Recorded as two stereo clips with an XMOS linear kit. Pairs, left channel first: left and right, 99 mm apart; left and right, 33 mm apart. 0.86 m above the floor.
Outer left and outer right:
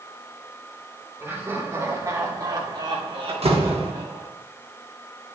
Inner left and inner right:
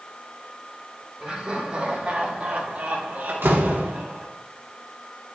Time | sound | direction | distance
1.2 | laughter | 25° right (ahead or behind) | 2.5 m
3.3 | a door slam | 80° right | 1.2 m